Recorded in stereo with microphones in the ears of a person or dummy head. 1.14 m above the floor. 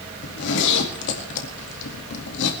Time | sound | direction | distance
0.2 | a zipper | 70° left (ahead or behind) | 2 m